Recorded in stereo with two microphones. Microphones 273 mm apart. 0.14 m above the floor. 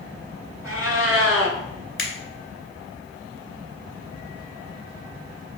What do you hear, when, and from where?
0.6 s a cat meowing: 55° right (ahead or behind), 1.0 m
2.0 s a finger snap: 50° left (ahead or behind), 1.3 m